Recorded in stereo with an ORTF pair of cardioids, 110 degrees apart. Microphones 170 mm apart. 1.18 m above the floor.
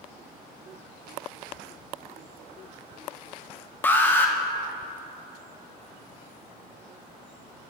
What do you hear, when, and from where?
3.8 s an alarm: 10° left, 0.9 m